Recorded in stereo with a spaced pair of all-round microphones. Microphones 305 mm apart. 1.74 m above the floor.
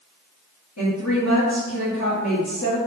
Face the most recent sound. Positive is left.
turn(degrees=65)  # may be behind; listen again after turning